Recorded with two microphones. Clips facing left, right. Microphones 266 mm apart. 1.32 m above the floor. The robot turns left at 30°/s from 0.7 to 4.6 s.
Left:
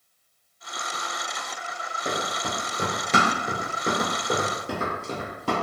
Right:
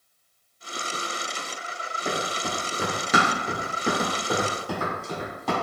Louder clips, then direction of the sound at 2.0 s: Right 1 dB; 10° left (ahead or behind).